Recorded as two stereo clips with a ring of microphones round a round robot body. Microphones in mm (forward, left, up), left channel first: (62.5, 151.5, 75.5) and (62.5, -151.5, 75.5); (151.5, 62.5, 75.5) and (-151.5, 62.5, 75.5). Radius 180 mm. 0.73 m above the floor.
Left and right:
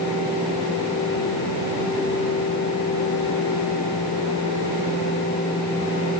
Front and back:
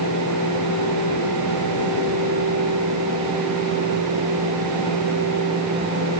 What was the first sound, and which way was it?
Only background noise.